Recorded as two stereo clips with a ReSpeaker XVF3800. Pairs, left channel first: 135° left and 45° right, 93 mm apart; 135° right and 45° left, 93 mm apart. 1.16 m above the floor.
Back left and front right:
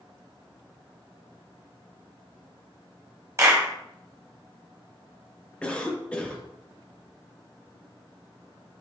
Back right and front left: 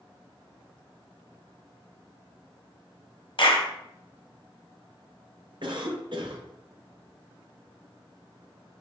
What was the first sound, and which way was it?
A clap, 105° right.